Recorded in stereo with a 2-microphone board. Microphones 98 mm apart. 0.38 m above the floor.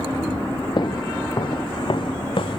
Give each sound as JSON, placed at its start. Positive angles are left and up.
{"t": 0.8, "sound": "footsteps", "side_deg": 50}